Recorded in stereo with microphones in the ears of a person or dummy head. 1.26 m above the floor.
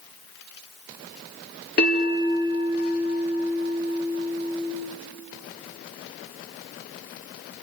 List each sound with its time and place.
1.8 s a bell: 50° left (ahead or behind), 3.5 m